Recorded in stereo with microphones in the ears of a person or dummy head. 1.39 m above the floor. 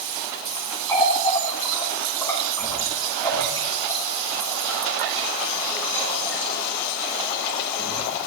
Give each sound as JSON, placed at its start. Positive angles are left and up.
{"t": 0.9, "sound": "a running tap", "side_deg": 15, "distance_m": 3.0}